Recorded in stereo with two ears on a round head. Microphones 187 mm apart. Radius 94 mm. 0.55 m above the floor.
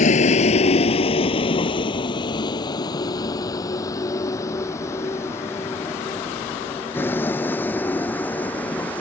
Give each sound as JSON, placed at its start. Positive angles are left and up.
{"t": 0.0, "sound": "a vehicle", "side_deg": 35}